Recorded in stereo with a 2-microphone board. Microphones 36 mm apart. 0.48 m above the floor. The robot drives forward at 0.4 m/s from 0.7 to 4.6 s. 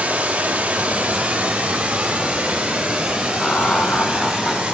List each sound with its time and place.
0.0 s running water: 35° right (ahead or behind), 1.9 m; by 4.7 s 20° right (ahead or behind), 3 m
3.4 s laughter: 30° left (ahead or behind), 1.3 m; by 4.6 s 35° left (ahead or behind), 1.1 m